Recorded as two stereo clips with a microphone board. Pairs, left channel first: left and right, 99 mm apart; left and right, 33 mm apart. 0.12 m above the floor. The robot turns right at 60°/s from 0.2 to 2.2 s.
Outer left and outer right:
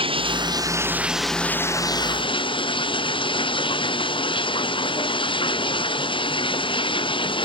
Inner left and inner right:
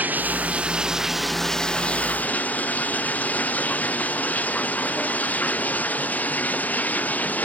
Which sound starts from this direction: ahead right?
Running water, at 0.0 s.